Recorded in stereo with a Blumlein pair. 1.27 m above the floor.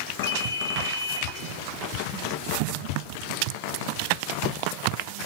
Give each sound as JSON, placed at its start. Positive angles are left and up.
{"t": 0.2, "sound": "a ringtone", "azimuth_deg": 65, "distance_m": 3.0}